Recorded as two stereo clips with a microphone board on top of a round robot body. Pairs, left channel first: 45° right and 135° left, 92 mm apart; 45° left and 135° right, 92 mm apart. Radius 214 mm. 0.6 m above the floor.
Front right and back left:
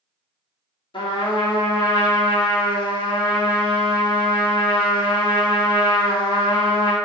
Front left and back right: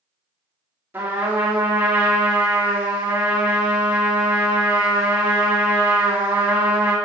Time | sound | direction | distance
0.9 | a trumpet | 65° right | 2.5 m